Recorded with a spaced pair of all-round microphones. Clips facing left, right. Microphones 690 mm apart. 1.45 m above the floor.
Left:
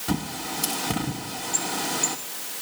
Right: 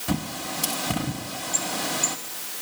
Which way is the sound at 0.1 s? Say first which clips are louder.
Even; 5° right (ahead or behind).